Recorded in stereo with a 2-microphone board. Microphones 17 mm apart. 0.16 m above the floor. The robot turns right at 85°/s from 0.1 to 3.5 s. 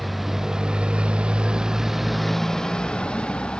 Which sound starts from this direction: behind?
A motorcycle, at 0.0 s.